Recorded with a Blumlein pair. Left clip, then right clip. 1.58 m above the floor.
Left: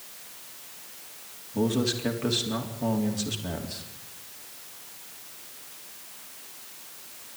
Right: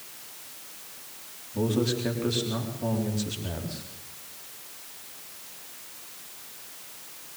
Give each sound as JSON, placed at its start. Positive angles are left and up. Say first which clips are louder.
{"t": 1.5, "sound": "a man speaking", "louder": "even", "azimuth_deg": 10, "distance_m": 3.5}